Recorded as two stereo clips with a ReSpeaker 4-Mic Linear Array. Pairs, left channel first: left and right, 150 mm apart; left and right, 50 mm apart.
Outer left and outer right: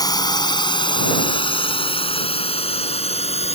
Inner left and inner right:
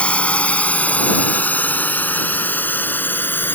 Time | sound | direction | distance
0.0 | a drone | 25° left (ahead or behind) | ?